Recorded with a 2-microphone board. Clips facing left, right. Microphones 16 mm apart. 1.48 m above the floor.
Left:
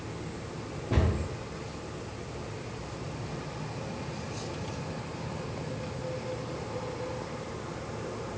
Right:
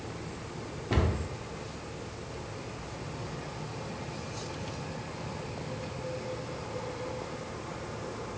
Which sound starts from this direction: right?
A cupboard door, at 0.9 s.